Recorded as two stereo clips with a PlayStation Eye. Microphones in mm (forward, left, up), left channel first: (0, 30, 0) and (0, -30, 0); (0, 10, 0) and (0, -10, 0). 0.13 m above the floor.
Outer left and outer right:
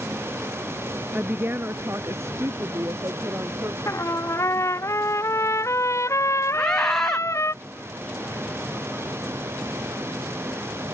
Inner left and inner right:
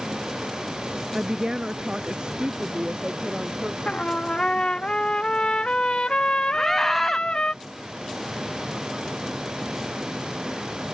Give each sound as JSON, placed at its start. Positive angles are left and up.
{"t": 1.1, "sound": "a woman speaking", "side_deg": -25}
{"t": 3.9, "sound": "a trumpet", "side_deg": 50}
{"t": 6.5, "sound": "a scream", "side_deg": 5}